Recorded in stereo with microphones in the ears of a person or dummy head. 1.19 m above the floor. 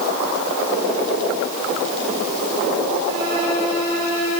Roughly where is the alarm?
No alarm in this recording.